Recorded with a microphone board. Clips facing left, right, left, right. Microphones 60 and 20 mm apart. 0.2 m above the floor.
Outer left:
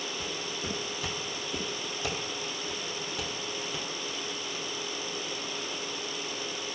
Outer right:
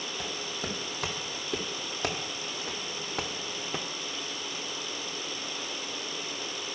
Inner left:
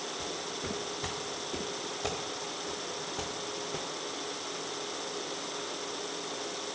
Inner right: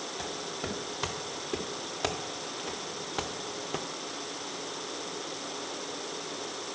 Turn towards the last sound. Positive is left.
turn(degrees=-35)  # may be behind; listen again after turning